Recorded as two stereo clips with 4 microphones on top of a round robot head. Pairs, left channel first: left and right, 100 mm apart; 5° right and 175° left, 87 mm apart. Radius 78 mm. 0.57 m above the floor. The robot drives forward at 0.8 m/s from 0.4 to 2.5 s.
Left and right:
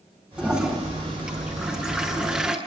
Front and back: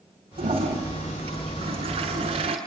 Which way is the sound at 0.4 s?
170° right.